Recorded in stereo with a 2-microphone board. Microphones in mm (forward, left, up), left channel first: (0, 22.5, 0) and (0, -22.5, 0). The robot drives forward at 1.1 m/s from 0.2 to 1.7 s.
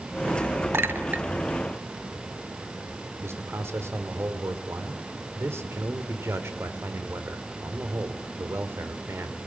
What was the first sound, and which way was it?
A clink, 60° right (ahead or behind).